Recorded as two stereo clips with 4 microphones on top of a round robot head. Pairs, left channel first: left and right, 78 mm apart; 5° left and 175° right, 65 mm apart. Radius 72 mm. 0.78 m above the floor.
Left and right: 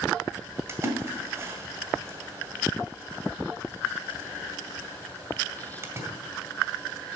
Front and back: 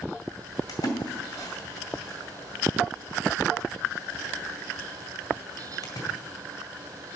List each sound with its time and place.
0.7 s a splash: 30° right, 2 m